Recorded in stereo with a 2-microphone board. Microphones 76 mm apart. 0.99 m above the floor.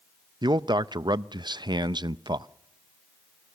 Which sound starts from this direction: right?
A man speaking, at 0.4 s.